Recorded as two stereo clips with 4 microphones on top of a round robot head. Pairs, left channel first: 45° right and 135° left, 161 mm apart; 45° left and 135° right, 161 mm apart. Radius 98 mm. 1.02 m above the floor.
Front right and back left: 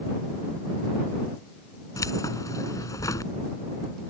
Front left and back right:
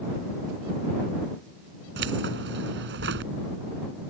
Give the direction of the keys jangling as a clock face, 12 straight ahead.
4 o'clock.